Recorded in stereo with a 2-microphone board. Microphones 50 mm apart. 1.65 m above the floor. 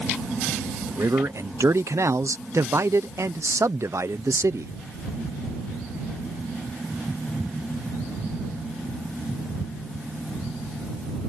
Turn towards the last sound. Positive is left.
turn(degrees=-75)  # may be behind; listen again after turning